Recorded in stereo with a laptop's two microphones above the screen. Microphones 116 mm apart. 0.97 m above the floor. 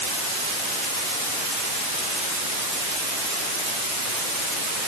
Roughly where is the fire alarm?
I don't hear a fire alarm.